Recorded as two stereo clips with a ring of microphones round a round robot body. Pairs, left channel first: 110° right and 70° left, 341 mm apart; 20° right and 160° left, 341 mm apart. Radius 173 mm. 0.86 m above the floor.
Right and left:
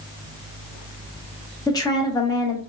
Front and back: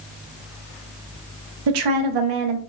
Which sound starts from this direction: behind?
A woman speaking, at 1.7 s.